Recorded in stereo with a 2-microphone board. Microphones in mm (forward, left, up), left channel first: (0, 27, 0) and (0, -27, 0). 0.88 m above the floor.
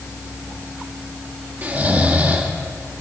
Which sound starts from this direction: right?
Snoring, at 1.6 s.